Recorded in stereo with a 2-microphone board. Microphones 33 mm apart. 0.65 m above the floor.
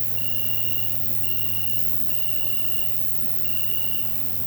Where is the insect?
5° left (ahead or behind), 1.2 m.